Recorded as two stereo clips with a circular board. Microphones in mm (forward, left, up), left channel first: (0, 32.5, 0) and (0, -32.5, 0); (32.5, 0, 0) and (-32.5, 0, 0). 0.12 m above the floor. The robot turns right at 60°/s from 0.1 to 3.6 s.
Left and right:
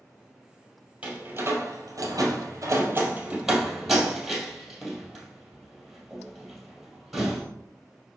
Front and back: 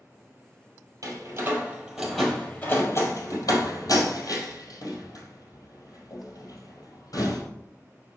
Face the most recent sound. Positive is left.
turn(degrees=0)